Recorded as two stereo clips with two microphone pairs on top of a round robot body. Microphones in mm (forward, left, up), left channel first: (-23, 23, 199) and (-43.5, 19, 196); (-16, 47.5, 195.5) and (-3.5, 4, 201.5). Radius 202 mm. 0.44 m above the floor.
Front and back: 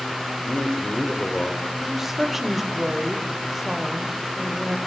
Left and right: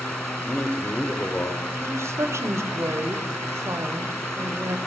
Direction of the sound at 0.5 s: 40° left.